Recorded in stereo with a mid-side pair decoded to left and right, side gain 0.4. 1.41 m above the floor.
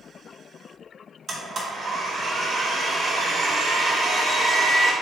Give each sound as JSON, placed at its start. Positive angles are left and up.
{"t": 1.3, "sound": "a blender", "azimuth_deg": -45, "distance_m": 2.0}